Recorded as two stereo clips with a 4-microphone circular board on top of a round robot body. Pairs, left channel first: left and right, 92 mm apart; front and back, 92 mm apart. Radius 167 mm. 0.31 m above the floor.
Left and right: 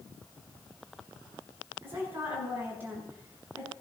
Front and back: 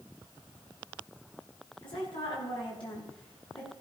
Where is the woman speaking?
25° right, 7 m.